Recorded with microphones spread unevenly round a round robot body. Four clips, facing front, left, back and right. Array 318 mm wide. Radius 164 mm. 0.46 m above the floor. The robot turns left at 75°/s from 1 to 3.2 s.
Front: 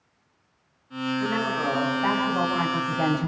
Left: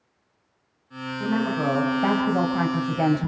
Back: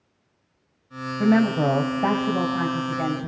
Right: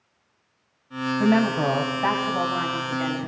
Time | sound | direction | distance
1.2 | a woman speaking | 150° right | 2.5 m